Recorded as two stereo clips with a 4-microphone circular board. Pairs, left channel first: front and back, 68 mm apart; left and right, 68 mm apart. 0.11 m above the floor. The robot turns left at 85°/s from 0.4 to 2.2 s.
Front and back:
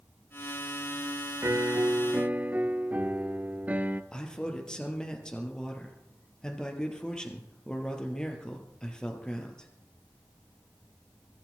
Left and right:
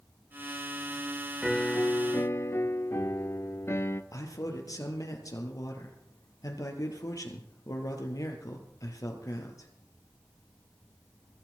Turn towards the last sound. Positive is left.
turn(degrees=75)